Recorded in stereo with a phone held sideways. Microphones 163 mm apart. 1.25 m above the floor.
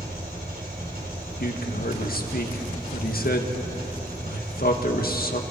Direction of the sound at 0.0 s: 65° right (ahead or behind).